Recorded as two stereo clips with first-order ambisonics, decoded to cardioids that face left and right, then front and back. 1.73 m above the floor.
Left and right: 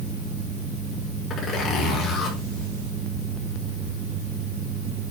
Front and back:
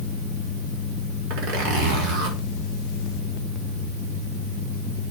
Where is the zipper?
155° left, 6 m.